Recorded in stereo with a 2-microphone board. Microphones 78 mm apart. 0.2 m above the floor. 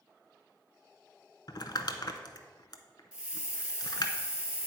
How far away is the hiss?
About 0.7 m.